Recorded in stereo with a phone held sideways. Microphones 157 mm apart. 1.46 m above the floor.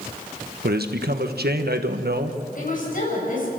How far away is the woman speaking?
About 7.5 m.